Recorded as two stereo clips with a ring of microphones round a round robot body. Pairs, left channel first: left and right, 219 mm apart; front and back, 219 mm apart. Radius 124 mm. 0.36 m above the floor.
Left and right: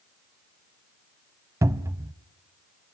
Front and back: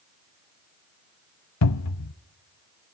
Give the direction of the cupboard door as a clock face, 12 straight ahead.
12 o'clock.